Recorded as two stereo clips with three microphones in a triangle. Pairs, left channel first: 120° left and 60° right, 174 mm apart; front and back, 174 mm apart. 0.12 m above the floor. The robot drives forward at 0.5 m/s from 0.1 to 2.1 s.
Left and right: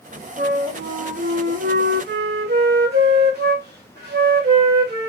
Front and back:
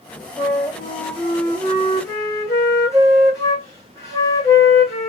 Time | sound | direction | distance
0.4 | a flute | 55° right | 3 m